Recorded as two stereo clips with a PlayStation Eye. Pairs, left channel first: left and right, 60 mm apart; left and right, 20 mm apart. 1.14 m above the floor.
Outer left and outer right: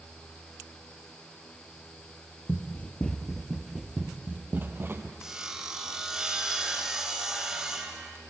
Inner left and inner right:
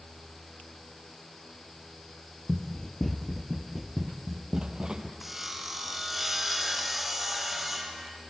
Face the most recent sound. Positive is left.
turn(degrees=-10)  # may be behind; listen again after turning